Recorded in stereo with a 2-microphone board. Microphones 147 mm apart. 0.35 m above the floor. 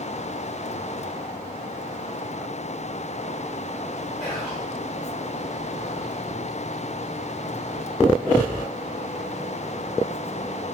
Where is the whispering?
Centre (ahead or behind), 1.1 m.